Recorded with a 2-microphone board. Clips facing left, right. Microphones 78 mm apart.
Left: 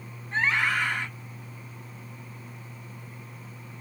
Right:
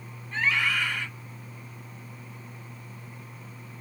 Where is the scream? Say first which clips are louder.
Left 1 dB; 30° left (ahead or behind), 1.1 m.